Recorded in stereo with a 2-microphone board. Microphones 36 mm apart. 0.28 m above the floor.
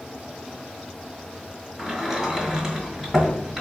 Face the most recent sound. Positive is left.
turn(degrees=-15)  # may be behind; listen again after turning